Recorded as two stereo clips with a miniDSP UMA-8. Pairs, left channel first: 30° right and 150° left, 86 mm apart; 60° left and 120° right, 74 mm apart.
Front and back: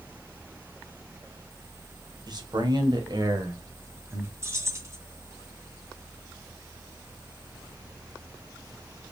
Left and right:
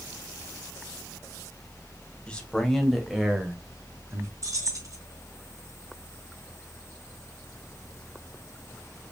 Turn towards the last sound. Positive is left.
turn(degrees=-160)